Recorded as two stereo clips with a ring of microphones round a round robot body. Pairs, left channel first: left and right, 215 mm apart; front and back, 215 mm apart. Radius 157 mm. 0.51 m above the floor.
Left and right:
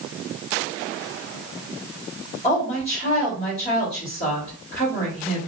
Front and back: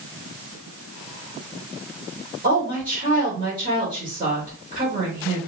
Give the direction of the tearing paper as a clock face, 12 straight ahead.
No tearing paper in this recording.